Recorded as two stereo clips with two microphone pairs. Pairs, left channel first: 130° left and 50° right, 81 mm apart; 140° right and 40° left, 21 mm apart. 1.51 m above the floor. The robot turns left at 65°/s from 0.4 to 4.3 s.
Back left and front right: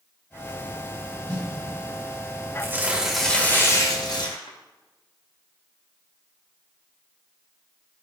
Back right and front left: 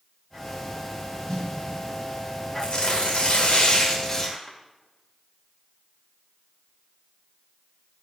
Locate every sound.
1.3 s a snare drum: 85° right, 5.5 m; by 1.5 s 100° right, 5.5 m
2.6 s tearing paper: 105° right, 2.5 m; by 4.6 s 145° left, 2.5 m